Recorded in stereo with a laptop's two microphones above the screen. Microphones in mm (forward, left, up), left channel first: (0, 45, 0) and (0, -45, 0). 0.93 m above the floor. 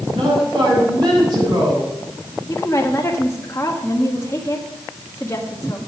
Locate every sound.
0.1 s a woman speaking: 50° right (ahead or behind), 7.5 m
2.5 s a woman speaking: 30° left (ahead or behind), 1.5 m